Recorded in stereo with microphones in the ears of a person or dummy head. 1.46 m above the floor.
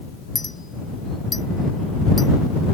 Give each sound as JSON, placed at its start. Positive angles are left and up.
{"t": 0.3, "sound": "a clink", "side_deg": 0}